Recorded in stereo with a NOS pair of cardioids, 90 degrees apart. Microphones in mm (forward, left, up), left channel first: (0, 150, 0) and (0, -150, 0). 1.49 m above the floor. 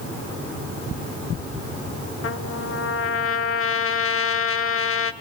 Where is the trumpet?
45° left, 1.4 m.